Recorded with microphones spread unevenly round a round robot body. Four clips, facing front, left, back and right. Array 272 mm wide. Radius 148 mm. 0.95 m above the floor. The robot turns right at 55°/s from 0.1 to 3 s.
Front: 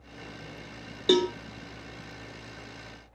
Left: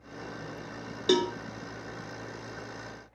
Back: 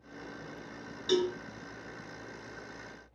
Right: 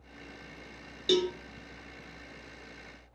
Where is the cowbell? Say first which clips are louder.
Left 2 dB, front 5 dB; 20° left, 0.6 m; by 1.3 s 30° left, 0.6 m.